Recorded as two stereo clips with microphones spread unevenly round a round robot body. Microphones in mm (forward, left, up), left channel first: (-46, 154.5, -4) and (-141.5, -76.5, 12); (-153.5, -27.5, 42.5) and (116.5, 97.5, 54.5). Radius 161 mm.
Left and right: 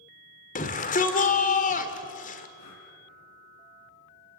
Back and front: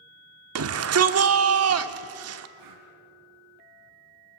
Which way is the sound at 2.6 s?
35° left.